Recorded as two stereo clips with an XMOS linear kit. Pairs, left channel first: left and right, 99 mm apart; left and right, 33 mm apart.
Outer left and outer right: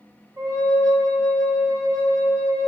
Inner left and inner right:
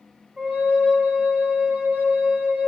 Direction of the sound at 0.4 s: 40° right (ahead or behind).